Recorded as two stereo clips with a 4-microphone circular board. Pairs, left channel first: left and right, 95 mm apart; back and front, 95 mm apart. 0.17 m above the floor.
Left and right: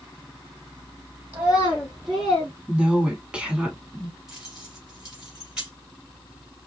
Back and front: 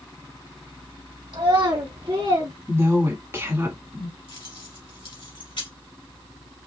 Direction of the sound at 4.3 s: 170° right.